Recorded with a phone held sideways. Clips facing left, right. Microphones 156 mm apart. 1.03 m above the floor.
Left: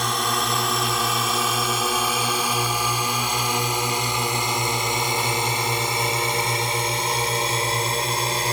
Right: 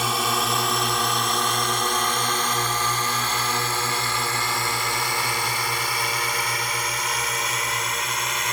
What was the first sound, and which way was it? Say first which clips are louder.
A drone: even; 5° right (ahead or behind).